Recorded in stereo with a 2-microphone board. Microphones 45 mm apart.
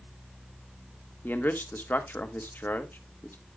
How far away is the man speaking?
About 1.4 m.